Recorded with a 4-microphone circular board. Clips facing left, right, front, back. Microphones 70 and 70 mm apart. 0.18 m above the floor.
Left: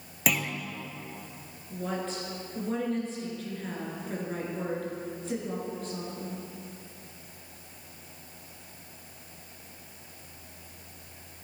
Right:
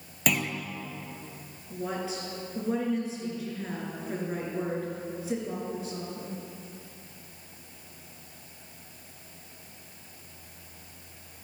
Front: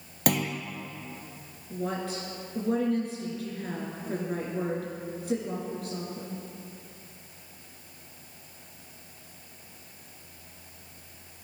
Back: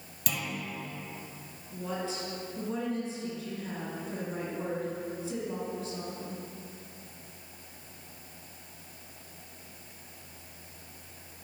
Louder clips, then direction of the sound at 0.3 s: Right 1 dB, front 8 dB; 5° left.